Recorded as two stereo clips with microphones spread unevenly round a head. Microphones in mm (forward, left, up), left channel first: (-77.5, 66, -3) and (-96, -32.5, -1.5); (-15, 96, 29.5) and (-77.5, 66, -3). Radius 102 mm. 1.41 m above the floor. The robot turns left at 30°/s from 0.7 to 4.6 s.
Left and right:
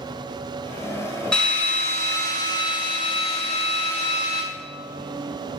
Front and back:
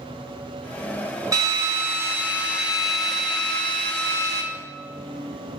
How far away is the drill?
About 2 m.